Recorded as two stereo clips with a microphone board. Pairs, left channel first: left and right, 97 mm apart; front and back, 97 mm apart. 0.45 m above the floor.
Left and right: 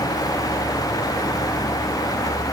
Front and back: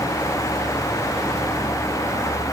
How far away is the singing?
I don't hear singing.